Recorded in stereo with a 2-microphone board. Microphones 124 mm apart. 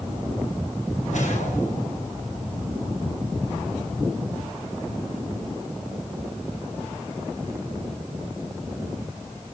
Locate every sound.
1.1 s a whoosh: 80° left, 6 m